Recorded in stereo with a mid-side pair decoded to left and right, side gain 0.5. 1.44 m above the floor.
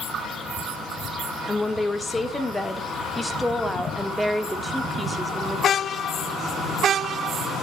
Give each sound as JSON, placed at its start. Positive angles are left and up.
{"t": 1.4, "sound": "a woman speaking", "azimuth_deg": 20, "distance_m": 4.5}